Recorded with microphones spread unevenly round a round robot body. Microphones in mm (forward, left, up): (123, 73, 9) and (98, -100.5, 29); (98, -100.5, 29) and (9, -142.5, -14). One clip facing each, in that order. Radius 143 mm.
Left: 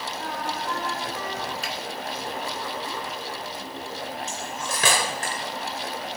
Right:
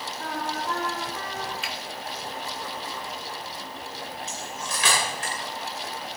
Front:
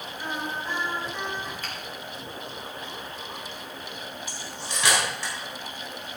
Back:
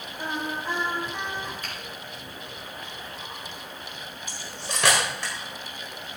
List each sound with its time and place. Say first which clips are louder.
0.2 s singing: right 1 dB, back 2 dB; 170° left, 8 m
1.6 s a finger snap: left 3 dB, front 1 dB; 35° left, 2.5 m
4.3 s cutlery clinking: left 3 dB, even; 145° left, 1.5 m